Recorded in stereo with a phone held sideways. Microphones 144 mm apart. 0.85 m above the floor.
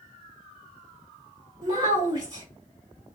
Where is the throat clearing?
I don't hear throat clearing.